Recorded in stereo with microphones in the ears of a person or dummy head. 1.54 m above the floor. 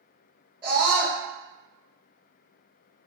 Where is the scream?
20° right (ahead or behind), 0.9 m.